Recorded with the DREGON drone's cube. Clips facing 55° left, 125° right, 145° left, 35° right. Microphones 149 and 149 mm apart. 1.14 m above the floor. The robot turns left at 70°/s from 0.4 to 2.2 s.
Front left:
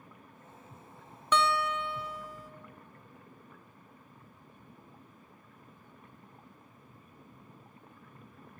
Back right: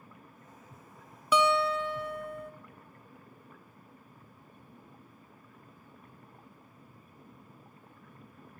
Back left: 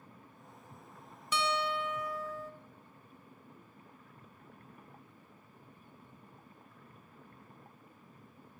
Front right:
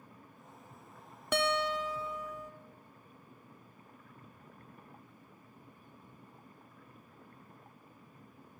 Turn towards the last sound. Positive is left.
turn(degrees=-105)